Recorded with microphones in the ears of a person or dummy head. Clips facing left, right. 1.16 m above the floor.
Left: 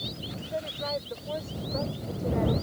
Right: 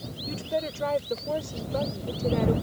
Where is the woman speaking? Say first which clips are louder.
Right 6 dB; 65° right (ahead or behind); by 2.5 s 50° right (ahead or behind).